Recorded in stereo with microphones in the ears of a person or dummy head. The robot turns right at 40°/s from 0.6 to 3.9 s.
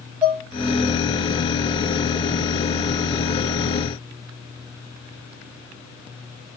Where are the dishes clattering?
10° right (ahead or behind), 2.5 m.